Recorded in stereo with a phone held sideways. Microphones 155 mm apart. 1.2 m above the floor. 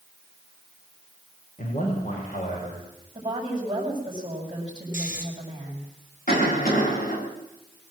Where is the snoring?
60° left (ahead or behind), 3.5 m.